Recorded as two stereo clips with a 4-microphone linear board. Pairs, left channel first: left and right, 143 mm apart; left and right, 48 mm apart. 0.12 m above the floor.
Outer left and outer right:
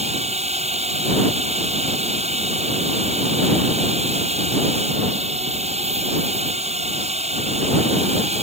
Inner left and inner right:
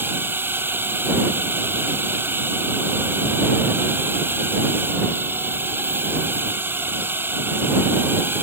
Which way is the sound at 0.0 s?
50° right (ahead or behind).